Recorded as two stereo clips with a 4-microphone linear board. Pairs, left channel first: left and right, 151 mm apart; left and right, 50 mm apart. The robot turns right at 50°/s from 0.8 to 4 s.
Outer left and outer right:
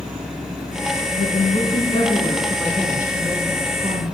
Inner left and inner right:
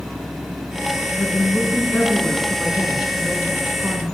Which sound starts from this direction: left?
A woman speaking, at 1.1 s.